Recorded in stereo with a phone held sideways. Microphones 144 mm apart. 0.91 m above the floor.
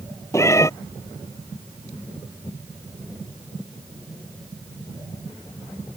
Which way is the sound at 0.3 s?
20° left (ahead or behind).